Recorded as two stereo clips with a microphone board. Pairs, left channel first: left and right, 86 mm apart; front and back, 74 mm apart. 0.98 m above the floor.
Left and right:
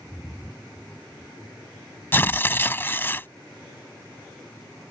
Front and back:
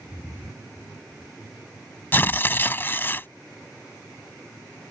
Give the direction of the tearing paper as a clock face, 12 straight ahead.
11 o'clock.